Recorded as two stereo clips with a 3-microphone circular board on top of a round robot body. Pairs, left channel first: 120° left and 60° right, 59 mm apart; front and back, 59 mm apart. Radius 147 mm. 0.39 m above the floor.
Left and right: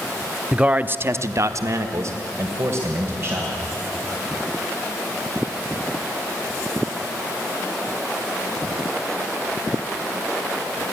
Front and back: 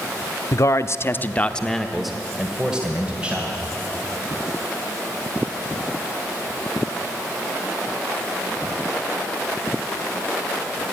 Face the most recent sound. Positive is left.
turn(degrees=-110)